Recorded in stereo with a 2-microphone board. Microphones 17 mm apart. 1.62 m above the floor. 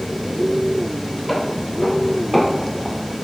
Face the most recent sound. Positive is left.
turn(degrees=-10)  # may be behind; listen again after turning